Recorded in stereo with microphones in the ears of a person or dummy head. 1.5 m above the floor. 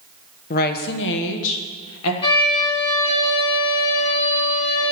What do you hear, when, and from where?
0.5 s a woman speaking: 45° left (ahead or behind), 0.8 m; by 2.1 s 85° left, 1.4 m
2.2 s a violin: 30° left (ahead or behind), 2.5 m